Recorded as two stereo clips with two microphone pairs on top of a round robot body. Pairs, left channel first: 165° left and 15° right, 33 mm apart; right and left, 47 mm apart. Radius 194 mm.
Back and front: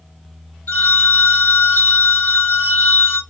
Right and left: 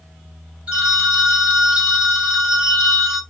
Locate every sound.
0.7 s a phone ringing: 155° left, 0.5 m